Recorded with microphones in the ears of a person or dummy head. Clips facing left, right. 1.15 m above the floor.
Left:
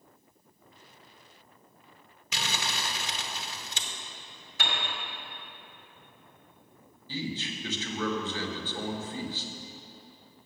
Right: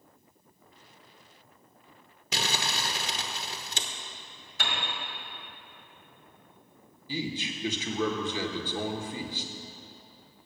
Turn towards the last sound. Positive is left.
turn(degrees=-15)  # may be behind; listen again after turning